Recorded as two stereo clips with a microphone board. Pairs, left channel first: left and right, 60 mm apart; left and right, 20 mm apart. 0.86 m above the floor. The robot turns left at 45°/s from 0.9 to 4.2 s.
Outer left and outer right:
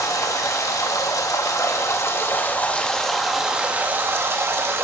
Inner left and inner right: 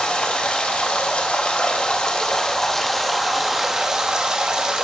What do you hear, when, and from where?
0.0 s running water: 105° left, 0.9 m; by 4.8 s 45° right, 0.9 m